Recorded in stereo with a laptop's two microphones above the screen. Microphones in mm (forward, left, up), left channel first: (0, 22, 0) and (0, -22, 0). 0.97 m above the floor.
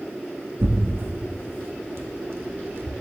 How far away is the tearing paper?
About 1.5 m.